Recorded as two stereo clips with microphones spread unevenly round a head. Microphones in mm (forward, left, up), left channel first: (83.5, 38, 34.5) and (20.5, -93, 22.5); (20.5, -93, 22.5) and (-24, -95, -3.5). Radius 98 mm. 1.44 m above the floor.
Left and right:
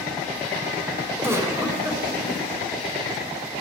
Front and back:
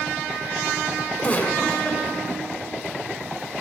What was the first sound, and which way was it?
A giggle, 40° right.